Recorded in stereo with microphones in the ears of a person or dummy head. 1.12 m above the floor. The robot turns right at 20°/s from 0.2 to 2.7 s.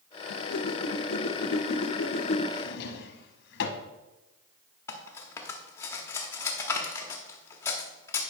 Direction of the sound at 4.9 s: 10° left (ahead or behind).